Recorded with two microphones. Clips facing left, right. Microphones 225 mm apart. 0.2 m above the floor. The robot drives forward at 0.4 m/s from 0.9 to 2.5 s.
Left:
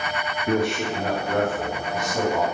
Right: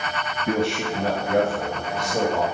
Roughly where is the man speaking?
Right.